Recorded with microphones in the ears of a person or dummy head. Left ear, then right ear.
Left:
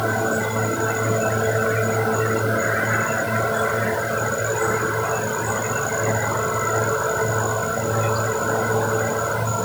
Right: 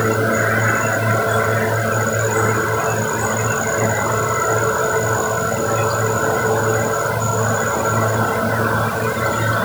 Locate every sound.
Only background noise.